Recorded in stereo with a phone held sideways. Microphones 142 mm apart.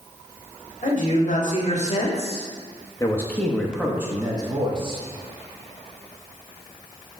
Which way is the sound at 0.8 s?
65° left (ahead or behind).